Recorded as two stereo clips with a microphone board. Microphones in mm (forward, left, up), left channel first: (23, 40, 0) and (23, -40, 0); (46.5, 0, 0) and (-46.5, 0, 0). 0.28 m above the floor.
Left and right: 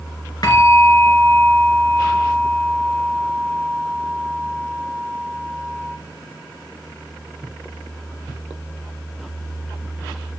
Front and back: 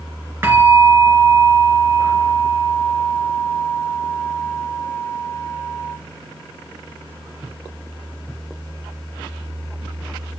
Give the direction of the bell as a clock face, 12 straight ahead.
8 o'clock.